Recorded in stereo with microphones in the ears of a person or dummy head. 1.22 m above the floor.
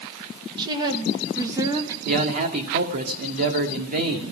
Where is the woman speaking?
25° right (ahead or behind), 1.2 m; by 1.9 s 20° right (ahead or behind), 2.5 m.